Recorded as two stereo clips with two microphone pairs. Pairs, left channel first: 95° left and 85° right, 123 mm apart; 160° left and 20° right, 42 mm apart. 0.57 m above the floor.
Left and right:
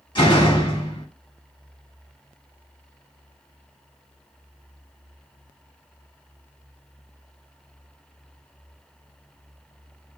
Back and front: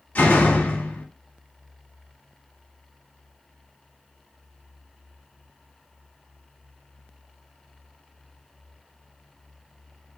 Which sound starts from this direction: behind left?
A door slam, at 0.1 s.